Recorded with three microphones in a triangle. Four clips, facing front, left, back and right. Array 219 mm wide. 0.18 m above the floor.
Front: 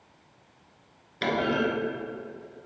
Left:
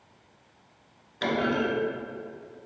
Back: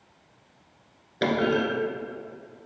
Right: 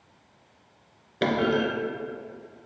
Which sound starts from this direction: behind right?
A clunk, at 1.2 s.